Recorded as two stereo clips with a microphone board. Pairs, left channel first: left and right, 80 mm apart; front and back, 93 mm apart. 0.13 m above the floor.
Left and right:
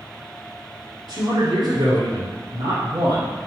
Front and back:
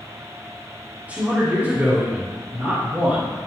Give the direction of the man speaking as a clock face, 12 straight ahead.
4 o'clock.